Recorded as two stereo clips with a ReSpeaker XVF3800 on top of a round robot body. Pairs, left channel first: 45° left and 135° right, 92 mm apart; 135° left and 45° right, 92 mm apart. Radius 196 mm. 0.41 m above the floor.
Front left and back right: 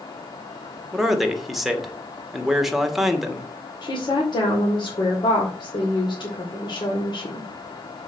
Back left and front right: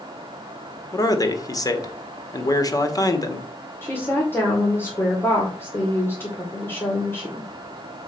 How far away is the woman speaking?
About 2.5 m.